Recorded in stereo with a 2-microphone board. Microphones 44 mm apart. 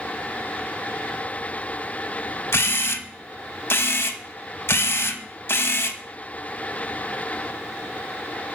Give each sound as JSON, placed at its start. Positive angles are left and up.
{"t": 2.5, "sound": "a camera shutter", "side_deg": 65, "distance_m": 0.6}